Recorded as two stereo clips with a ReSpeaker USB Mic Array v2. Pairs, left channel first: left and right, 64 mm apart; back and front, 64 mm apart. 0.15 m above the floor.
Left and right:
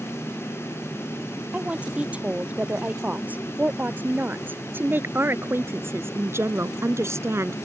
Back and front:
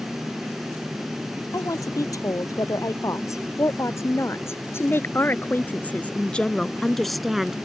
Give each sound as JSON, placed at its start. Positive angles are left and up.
{"t": 1.5, "sound": "a woman speaking", "azimuth_deg": -155}